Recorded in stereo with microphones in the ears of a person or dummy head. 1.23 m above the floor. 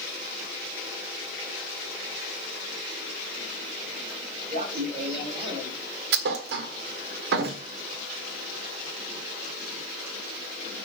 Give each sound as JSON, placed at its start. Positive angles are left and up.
{"t": 4.5, "sound": "laughter", "side_deg": -35, "distance_m": 5.0}
{"t": 6.1, "sound": "a thud", "side_deg": -60, "distance_m": 1.3}